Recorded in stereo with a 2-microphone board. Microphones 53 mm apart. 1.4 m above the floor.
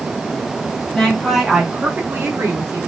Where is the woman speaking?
10° left (ahead or behind), 1.3 m; by 2.8 s 60° right (ahead or behind), 1.3 m.